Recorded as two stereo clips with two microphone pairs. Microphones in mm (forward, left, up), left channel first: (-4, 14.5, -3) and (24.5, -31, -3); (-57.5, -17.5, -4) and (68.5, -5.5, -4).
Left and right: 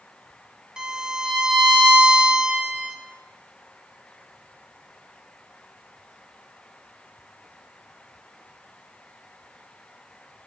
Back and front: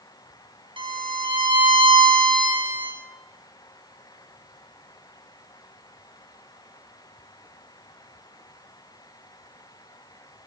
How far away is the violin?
About 1.2 m.